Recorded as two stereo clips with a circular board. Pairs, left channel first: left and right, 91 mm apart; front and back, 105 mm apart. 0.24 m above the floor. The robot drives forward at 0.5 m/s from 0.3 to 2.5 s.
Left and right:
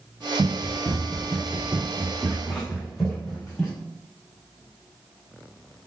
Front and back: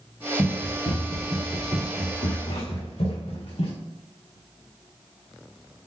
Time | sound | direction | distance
0.4 | running footsteps | 30° right | 1.7 m